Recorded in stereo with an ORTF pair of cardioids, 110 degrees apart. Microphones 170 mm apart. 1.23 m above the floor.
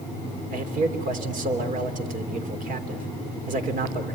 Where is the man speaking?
50° right, 3.5 m.